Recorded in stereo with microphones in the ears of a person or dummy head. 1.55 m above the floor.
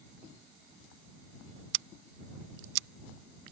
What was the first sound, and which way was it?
Scissors, 70° right (ahead or behind).